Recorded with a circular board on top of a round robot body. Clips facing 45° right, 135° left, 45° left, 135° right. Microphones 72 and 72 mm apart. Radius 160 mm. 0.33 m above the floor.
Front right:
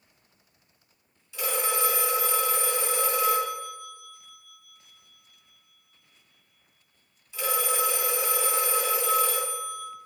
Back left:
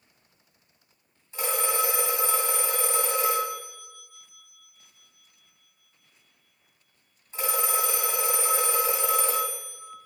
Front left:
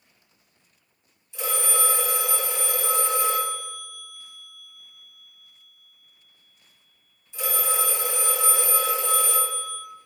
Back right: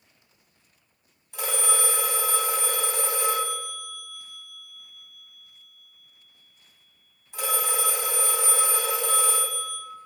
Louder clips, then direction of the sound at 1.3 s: Back left 1 dB, front left 1 dB; 170° right.